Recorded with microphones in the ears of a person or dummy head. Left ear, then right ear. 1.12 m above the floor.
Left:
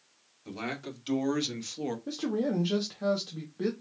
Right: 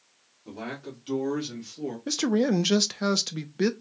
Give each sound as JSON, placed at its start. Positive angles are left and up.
{"t": 0.5, "sound": "a man speaking", "side_deg": 35, "distance_m": 2.0}
{"t": 2.1, "sound": "a man speaking", "side_deg": -60, "distance_m": 0.5}